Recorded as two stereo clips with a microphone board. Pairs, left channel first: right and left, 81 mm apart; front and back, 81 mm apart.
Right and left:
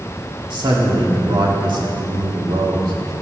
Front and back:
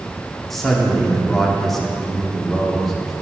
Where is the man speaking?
85° left, 1.6 m.